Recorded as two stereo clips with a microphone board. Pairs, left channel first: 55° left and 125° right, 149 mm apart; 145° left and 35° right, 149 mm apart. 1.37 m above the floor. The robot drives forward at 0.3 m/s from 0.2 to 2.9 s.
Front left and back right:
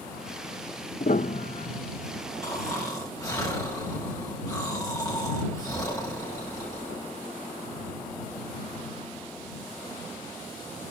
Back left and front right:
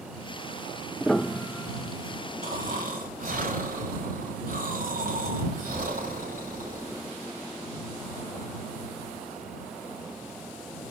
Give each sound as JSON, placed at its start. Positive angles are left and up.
{"t": 1.0, "sound": "a piano", "azimuth_deg": 55, "distance_m": 0.8}
{"t": 2.4, "sound": "snoring", "azimuth_deg": -15, "distance_m": 6.0}